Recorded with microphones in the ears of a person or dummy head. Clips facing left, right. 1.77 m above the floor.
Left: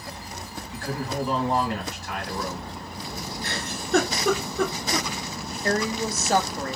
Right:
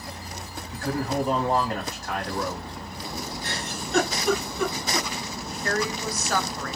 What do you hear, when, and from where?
0.7 s a man speaking: 40° right (ahead or behind), 1.8 m
3.4 s a giggle: 45° left (ahead or behind), 2 m
5.6 s a woman speaking: 30° left (ahead or behind), 0.5 m